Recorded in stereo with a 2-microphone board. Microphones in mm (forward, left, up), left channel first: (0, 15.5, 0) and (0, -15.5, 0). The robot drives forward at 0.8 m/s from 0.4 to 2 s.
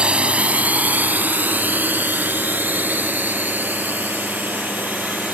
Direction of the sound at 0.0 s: 35° right (ahead or behind).